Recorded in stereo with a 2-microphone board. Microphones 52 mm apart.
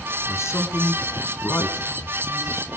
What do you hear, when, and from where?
0.3 s a man speaking: 60° left (ahead or behind), 2.5 m